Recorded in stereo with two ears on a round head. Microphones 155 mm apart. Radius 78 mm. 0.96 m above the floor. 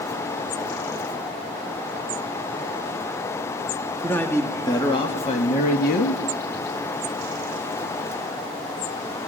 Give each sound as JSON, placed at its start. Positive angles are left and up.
{"t": 4.0, "sound": "a man speaking", "side_deg": 10, "distance_m": 2.0}